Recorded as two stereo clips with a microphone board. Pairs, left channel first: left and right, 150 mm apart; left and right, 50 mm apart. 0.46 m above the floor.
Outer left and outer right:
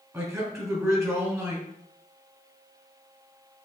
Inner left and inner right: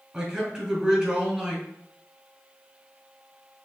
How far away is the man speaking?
About 2.5 m.